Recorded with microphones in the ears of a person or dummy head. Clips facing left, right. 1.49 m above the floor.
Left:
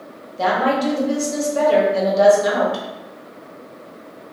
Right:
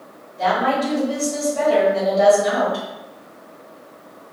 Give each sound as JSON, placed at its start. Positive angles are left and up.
{"t": 0.4, "sound": "a woman speaking", "side_deg": 70, "distance_m": 1.6}